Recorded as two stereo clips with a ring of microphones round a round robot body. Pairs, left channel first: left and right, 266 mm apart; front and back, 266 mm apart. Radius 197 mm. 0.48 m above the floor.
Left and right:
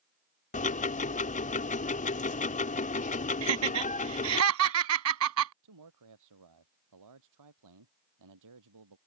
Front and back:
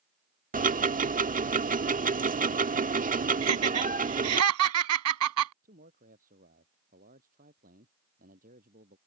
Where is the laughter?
135° right.